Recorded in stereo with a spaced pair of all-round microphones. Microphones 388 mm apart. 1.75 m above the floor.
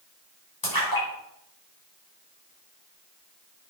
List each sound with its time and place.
0.6 s a splash: 60° left (ahead or behind), 6 m